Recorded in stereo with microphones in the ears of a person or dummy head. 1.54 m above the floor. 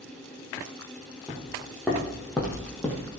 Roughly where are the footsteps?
Centre.